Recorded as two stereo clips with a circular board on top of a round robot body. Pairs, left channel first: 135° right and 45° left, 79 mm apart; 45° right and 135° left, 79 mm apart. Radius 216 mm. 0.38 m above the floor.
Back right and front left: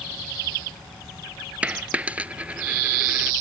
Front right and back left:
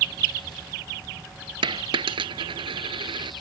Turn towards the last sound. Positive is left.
turn(degrees=120)